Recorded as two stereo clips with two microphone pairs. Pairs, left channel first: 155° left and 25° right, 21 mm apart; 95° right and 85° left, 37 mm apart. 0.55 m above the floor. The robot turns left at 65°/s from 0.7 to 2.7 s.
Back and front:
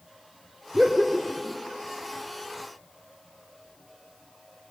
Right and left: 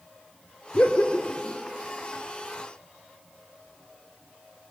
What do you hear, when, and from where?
0.7 s laughter: 75° right, 1.3 m; by 1.6 s 130° right, 1.3 m